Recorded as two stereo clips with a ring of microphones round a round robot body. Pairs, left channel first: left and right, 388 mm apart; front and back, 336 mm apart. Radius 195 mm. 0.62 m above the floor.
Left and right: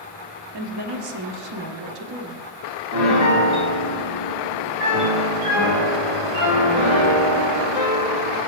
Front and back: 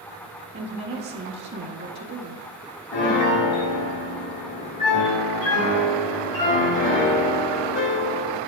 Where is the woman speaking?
120° right, 1.1 m.